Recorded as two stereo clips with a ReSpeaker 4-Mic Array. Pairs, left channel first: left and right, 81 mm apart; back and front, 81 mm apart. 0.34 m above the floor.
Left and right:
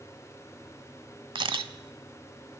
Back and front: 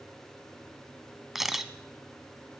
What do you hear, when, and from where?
1.4 s a camera shutter: 85° right, 0.8 m